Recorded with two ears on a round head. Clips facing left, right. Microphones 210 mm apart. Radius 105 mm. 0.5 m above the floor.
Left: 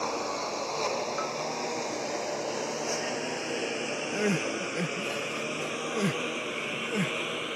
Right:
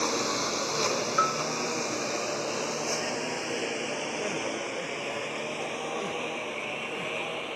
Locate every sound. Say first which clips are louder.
0.0 s a lawn mower: right 3 dB; 30° right (ahead or behind); by 7.6 s 25° left (ahead or behind)
1.2 s a bell: right 2 dB; 65° right (ahead or behind)
4.1 s crying: left 3 dB; 75° left (ahead or behind)